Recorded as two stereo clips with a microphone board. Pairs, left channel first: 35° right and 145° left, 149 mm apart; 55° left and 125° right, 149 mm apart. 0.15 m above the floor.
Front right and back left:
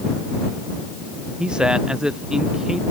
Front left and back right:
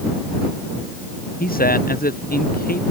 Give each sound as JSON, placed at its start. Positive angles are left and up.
{"t": 1.4, "sound": "a man speaking", "azimuth_deg": 60}